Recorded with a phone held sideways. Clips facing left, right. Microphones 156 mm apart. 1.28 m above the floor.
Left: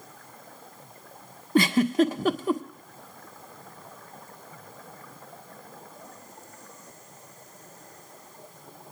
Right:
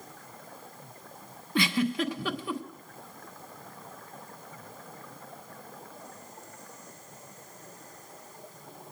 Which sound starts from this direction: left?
A giggle, at 1.6 s.